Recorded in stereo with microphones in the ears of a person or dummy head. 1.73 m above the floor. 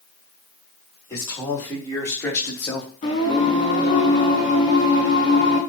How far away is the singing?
About 3.5 m.